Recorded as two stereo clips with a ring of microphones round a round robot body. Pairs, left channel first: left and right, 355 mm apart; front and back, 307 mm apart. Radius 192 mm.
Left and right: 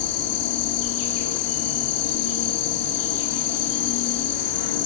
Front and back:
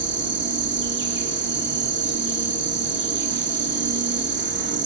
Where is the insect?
125° left, 1.1 m.